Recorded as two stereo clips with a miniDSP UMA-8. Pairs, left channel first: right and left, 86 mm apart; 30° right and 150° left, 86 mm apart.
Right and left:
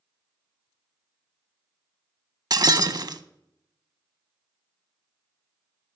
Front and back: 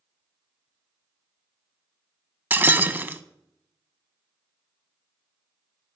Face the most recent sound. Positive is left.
turn(degrees=90)